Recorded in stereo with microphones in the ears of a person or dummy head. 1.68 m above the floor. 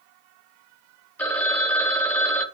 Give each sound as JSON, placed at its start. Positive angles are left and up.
{"t": 1.2, "sound": "a phone ringing", "side_deg": 10, "distance_m": 1.0}